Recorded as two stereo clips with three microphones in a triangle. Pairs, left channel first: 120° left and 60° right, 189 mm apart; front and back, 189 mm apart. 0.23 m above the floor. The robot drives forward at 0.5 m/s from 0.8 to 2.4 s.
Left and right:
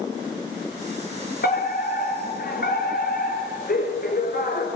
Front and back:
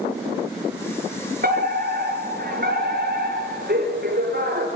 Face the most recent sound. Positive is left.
turn(degrees=150)